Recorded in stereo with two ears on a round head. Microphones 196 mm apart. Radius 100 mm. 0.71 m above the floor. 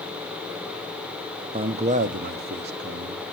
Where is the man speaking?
25° right (ahead or behind), 0.6 m; by 3.2 s 50° right (ahead or behind), 1.0 m.